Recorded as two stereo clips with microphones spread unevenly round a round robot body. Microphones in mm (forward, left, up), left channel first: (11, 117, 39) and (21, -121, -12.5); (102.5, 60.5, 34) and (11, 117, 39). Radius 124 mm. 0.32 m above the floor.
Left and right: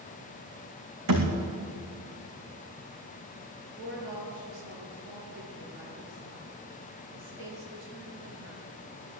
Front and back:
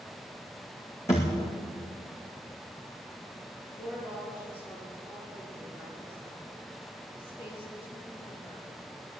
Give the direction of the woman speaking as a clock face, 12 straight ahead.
4 o'clock.